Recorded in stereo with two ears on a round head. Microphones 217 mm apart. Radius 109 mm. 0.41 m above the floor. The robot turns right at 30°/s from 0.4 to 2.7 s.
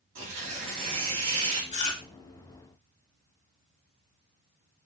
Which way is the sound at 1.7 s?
25° left (ahead or behind).